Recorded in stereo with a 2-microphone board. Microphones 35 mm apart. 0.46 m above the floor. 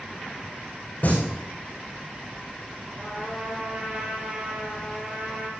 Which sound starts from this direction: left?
Singing, at 1.0 s.